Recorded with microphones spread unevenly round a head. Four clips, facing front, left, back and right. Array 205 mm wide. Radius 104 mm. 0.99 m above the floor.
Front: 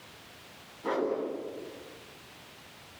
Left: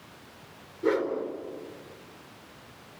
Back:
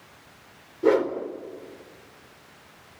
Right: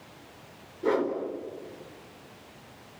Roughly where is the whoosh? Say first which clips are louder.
Even, back 9 dB; behind.